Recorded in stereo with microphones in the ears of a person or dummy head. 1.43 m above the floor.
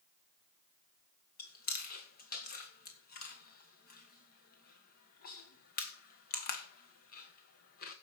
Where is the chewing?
55° left (ahead or behind), 2.0 m.